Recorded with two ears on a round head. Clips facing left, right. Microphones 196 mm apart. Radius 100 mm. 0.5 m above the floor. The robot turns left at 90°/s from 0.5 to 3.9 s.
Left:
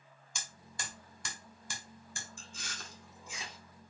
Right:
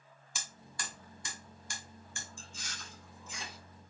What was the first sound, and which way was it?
Hammering, 5° right (ahead or behind).